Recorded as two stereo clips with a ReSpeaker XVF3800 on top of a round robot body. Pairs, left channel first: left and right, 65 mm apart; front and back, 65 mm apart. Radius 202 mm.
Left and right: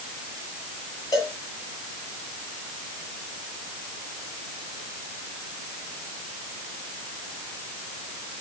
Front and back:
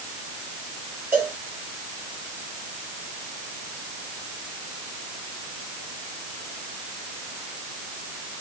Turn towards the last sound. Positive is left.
turn(degrees=110)